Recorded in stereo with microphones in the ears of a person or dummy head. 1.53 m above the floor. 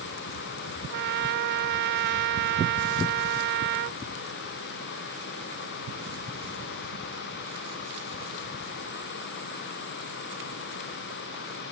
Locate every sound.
0.9 s a trumpet: 60° right (ahead or behind)